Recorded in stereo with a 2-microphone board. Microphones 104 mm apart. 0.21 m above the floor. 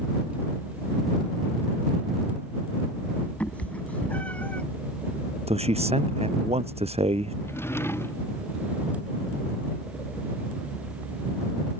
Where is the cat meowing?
15° left (ahead or behind).